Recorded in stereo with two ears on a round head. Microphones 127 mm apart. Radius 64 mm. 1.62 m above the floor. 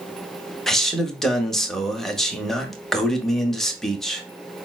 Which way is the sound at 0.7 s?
Centre (ahead or behind).